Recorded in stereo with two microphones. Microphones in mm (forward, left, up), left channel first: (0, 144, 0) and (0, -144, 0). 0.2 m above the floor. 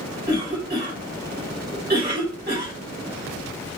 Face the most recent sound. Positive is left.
turn(degrees=-35)  # may be behind; listen again after turning